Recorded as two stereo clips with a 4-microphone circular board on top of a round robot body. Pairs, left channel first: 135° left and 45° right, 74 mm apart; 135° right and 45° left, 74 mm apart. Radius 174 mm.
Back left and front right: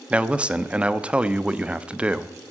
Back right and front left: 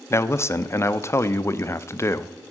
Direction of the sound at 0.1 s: 115° right.